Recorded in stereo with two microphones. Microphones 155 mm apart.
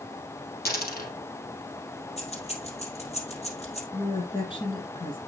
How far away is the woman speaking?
About 4.5 m.